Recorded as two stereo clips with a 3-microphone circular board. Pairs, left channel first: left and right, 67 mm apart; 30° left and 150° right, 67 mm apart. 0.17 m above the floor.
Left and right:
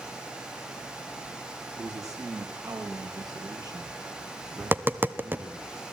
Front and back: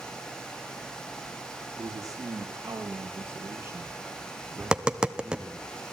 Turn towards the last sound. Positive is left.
turn(degrees=-90)